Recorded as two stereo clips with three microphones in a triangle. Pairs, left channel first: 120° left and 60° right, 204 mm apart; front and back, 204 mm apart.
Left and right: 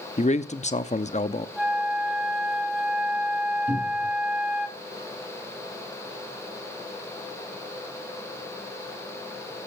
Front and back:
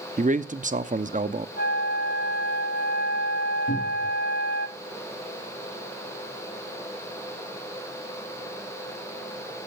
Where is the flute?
25° left, 1.4 m.